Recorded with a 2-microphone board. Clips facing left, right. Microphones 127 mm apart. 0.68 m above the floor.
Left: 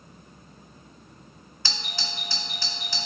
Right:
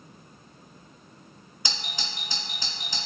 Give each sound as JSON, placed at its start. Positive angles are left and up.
{"t": 1.6, "sound": "a doorbell", "side_deg": -15, "distance_m": 1.0}